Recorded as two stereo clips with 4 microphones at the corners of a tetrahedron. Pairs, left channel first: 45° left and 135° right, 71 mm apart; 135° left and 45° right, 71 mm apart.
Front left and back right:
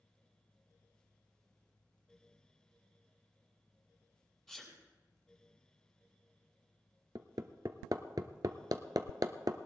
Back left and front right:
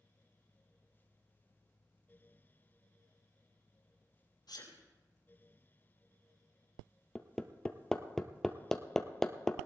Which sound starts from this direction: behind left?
A sneeze, at 4.5 s.